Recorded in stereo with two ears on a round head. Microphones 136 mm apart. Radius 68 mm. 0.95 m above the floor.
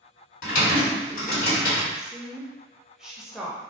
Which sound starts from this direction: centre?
A woman speaking, at 1.9 s.